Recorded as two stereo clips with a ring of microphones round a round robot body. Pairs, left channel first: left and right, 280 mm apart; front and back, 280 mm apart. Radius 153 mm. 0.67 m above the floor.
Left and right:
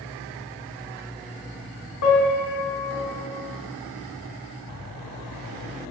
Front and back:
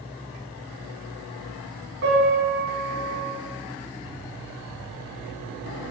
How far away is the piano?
About 2.5 m.